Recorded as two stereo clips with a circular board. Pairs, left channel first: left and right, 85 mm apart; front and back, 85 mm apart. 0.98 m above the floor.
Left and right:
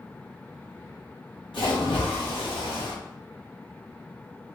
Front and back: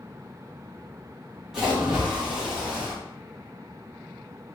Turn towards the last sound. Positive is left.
turn(degrees=95)